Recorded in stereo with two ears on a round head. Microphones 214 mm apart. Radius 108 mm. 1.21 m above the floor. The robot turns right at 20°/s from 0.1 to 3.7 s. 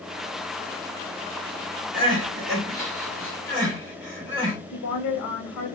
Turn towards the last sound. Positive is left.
turn(degrees=80)